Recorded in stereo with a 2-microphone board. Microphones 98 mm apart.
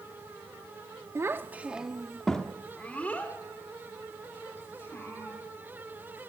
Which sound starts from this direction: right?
A child speaking, at 1.1 s.